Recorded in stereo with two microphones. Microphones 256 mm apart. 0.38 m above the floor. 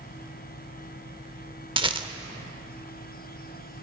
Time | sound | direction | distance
1.8 | a rattle | 20° right (ahead or behind) | 0.6 m